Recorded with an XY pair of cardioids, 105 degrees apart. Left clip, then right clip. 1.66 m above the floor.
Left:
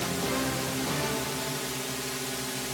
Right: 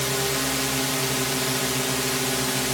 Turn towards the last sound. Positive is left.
turn(degrees=-55)